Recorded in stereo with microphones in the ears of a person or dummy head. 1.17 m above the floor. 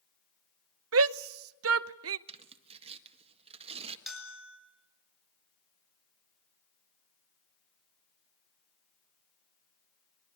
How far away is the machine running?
No machine running in this recording.